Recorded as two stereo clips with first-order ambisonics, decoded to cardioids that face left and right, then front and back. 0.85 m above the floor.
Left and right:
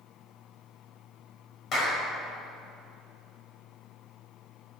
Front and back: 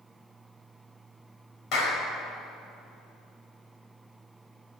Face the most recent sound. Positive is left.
turn(degrees=40)